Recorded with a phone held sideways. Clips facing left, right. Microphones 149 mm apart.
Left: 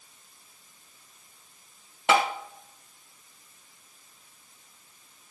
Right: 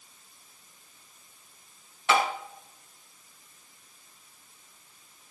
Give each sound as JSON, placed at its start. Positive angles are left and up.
{"t": 2.1, "sound": "tapping", "side_deg": 85, "distance_m": 1.4}